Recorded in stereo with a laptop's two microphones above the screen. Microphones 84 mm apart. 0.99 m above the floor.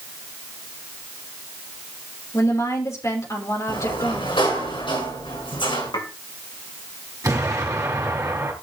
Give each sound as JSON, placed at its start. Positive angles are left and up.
{"t": 2.3, "sound": "a woman speaking", "side_deg": 40, "distance_m": 3.5}
{"t": 3.7, "sound": "a sliding door", "side_deg": 85, "distance_m": 6.0}
{"t": 5.9, "sound": "dishes clattering", "side_deg": 65, "distance_m": 3.0}
{"t": 7.2, "sound": "an explosion", "side_deg": -40, "distance_m": 3.0}